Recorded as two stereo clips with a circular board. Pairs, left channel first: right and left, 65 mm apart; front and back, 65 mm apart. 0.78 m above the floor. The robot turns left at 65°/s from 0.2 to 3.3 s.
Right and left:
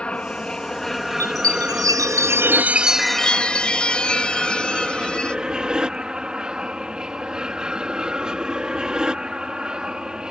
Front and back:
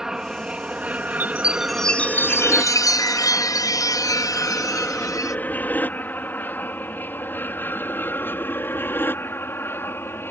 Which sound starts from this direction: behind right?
An aircraft, at 0.0 s.